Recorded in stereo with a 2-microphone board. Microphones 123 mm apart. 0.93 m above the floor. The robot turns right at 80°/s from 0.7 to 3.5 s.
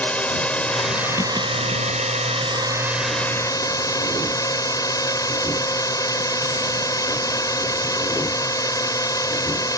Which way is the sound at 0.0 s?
165° left.